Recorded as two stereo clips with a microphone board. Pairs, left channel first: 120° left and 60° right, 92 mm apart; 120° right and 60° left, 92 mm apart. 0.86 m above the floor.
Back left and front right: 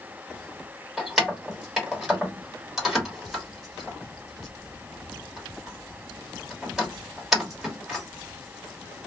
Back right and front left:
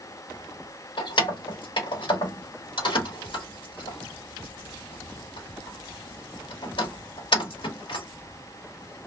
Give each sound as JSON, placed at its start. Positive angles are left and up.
{"t": 1.0, "sound": "keys jangling", "azimuth_deg": -145, "distance_m": 1.1}